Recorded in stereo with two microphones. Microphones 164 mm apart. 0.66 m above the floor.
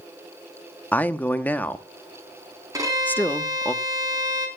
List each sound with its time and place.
0.9 s a man speaking: 10° left (ahead or behind), 0.8 m
2.7 s a violin: 20° right (ahead or behind), 4 m